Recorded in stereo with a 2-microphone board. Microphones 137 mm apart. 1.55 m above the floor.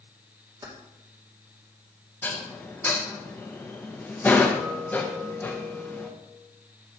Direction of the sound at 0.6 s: 30° right (ahead or behind).